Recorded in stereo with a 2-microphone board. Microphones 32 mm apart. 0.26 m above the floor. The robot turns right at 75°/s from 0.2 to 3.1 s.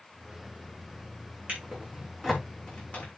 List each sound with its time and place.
1.5 s a drawer: 65° right (ahead or behind), 7.5 m; by 3.1 s 50° left (ahead or behind), 7.5 m